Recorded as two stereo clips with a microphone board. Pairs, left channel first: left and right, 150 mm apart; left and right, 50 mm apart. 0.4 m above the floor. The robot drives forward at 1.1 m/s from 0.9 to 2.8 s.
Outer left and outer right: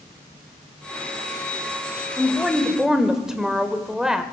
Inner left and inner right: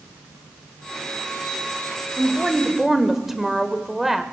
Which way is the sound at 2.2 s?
5° right (ahead or behind).